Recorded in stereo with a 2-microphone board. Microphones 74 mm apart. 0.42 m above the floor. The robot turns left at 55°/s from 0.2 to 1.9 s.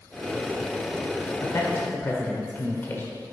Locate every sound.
1.4 s a man speaking: 45° left (ahead or behind), 1.0 m; by 3.0 s 30° left (ahead or behind), 1.0 m